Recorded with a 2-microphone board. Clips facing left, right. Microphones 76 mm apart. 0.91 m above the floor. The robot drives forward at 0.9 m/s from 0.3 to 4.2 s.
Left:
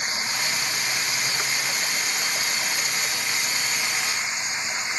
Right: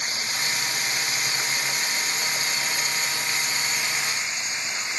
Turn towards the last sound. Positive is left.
turn(degrees=20)  # may be behind; listen again after turning